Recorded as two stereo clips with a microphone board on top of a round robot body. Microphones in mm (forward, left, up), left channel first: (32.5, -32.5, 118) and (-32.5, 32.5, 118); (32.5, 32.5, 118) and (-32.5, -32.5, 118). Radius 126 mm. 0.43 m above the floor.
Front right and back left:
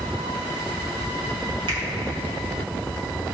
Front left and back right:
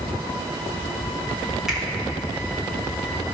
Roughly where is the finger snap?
Behind left.